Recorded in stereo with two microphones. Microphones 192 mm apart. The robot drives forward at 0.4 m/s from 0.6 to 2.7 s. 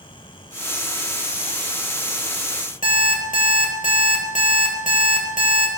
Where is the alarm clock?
40° left (ahead or behind), 1.7 m.